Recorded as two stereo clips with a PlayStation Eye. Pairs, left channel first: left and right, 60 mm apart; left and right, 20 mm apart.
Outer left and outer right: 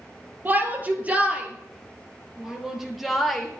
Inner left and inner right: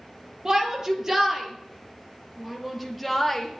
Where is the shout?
30° right (ahead or behind), 3 m; by 3.5 s 5° left (ahead or behind), 2.5 m.